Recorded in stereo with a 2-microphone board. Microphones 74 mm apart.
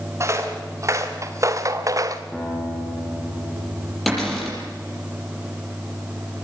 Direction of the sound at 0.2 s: 40° right (ahead or behind).